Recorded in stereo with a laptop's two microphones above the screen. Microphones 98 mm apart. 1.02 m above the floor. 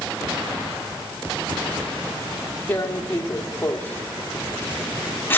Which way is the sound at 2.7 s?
20° left (ahead or behind).